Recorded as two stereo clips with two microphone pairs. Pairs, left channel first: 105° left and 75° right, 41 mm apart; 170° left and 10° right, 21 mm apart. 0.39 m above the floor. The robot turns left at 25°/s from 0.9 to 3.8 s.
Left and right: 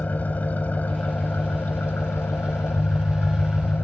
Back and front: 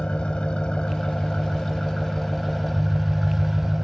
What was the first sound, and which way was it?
An engine running, 145° left.